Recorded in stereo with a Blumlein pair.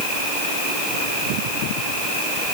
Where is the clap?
I don't hear a clap.